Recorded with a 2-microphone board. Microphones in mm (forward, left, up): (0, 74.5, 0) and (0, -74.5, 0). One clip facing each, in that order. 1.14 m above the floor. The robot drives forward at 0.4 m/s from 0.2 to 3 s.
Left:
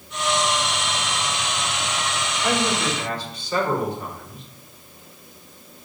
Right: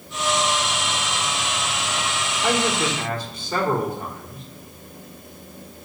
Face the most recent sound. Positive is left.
turn(degrees=-45)  # may be behind; listen again after turning